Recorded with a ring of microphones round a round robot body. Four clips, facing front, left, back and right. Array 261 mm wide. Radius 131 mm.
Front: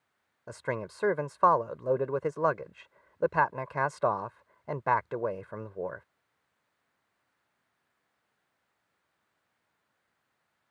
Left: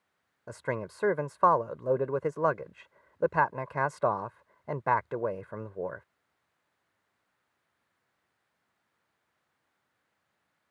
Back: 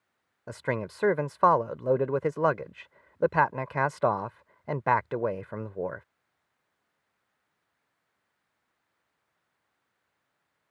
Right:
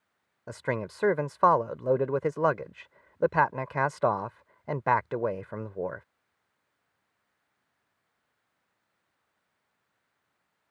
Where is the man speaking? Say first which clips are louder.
Right 2 dB, back 3 dB; 145° right.